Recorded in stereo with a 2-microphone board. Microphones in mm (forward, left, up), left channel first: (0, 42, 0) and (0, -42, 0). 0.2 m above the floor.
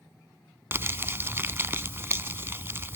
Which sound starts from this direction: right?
Crumpling, at 0.7 s.